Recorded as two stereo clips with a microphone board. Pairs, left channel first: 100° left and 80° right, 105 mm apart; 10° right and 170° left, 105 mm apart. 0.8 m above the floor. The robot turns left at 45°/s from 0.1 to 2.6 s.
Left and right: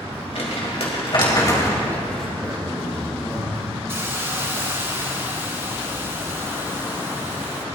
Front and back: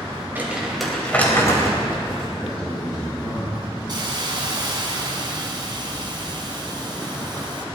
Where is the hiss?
145° right, 2.5 m.